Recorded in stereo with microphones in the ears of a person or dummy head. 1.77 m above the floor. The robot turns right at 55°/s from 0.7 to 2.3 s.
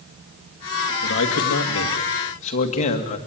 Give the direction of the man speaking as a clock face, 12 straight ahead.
10 o'clock.